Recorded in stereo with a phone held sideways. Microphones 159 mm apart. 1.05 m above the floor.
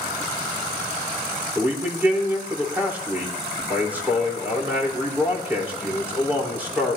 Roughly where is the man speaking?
Centre.